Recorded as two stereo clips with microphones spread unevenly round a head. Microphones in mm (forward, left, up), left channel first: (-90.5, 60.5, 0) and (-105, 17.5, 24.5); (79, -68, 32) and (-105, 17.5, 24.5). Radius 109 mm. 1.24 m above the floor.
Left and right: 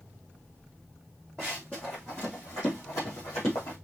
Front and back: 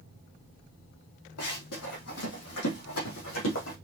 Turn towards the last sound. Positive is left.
turn(degrees=10)